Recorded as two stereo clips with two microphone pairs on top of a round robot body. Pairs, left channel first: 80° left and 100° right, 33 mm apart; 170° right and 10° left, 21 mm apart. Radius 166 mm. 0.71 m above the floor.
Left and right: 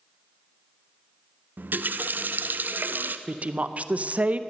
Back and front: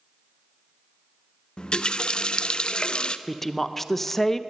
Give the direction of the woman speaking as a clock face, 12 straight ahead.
4 o'clock.